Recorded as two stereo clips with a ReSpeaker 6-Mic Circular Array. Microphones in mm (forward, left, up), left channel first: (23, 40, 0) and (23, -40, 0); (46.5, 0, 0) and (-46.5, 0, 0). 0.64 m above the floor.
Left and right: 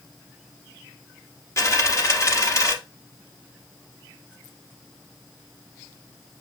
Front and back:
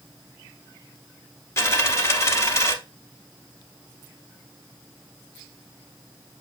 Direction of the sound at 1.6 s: 50° left.